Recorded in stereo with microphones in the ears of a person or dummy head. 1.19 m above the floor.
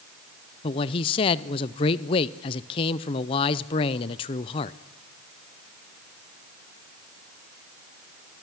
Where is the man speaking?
30° left (ahead or behind), 0.6 m.